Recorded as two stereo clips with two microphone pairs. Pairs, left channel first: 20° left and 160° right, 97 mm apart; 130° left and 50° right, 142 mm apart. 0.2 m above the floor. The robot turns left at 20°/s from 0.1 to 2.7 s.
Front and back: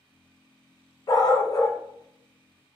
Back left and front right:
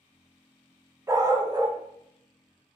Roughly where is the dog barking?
Ahead.